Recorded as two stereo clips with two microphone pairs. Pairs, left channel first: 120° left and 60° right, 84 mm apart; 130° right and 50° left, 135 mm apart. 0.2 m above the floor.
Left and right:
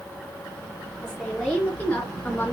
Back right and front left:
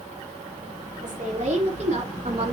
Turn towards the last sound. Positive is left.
turn(degrees=65)